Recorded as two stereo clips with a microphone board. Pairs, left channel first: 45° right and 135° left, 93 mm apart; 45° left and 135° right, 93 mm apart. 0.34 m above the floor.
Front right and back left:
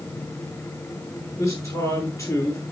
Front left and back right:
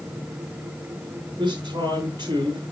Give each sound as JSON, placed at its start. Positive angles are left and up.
{"t": 1.4, "sound": "a man speaking", "azimuth_deg": -100, "distance_m": 6.0}